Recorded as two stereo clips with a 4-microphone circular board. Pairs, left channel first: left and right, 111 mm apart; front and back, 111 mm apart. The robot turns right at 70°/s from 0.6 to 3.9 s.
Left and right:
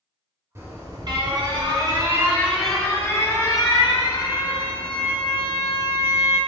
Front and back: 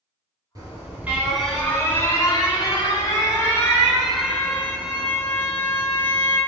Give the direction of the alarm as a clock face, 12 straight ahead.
5 o'clock.